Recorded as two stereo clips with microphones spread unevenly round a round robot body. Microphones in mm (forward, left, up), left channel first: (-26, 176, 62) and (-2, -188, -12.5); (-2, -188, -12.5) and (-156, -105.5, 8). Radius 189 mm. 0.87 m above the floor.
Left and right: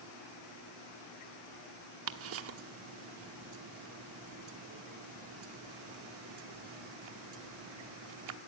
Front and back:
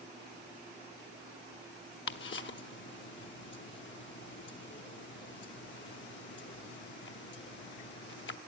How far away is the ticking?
About 1.0 m.